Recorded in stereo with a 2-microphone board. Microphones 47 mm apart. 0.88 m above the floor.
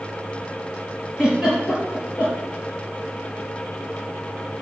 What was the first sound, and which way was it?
A giggle, 10° right (ahead or behind).